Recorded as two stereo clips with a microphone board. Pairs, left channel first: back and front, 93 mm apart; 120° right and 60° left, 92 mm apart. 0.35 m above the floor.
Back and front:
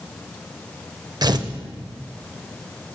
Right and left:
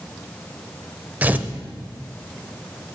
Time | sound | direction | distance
1.2 | tearing paper | 5° right | 0.5 m